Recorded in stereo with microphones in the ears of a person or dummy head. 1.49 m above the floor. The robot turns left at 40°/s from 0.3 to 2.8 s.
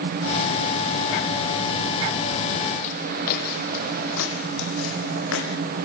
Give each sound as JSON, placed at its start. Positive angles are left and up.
{"t": 2.8, "sound": "footsteps", "side_deg": 45, "distance_m": 3.5}